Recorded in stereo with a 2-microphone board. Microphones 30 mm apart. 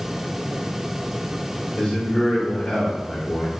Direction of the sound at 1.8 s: 25° left (ahead or behind).